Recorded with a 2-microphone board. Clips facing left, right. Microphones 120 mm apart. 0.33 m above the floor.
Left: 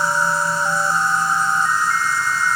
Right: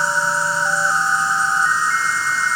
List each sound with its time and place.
0.0 s an insect: 60° left (ahead or behind), 1.3 m